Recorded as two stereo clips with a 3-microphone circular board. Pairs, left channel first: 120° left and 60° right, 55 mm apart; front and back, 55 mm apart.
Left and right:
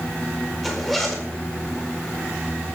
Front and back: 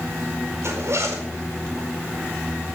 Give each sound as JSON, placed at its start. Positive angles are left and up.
{"t": 0.6, "sound": "a zipper", "azimuth_deg": -150, "distance_m": 4.5}